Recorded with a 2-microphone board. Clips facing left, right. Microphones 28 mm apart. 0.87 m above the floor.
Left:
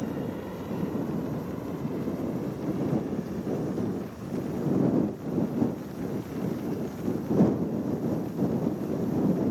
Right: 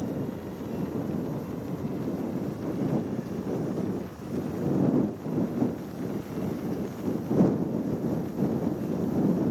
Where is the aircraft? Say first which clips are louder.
Even; 25° left (ahead or behind); by 9.5 s 15° right (ahead or behind).